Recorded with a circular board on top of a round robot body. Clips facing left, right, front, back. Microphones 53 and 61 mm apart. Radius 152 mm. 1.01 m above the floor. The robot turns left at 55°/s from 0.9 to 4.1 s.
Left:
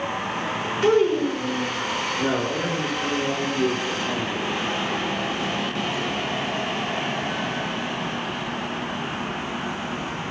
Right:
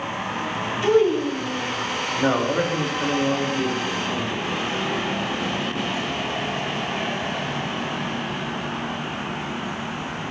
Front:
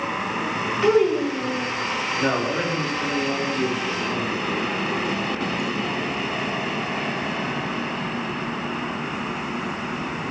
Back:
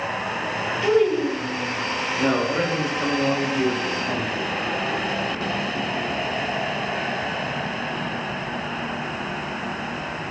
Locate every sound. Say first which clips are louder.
0.8 s a child speaking: even, front 1 dB; 65° left, 1.2 m; by 1.7 s 15° left, 1.2 m
2.2 s a man speaking: right 5 dB, back 2 dB; 70° right, 1.0 m; by 4.5 s 175° right, 1.0 m